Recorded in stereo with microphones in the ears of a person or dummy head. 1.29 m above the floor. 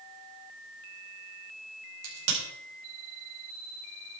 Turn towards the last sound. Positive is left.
turn(degrees=-75)  # may be behind; listen again after turning